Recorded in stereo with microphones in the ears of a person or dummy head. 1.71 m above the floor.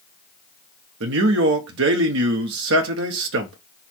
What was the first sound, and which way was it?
A man speaking, 70° right (ahead or behind).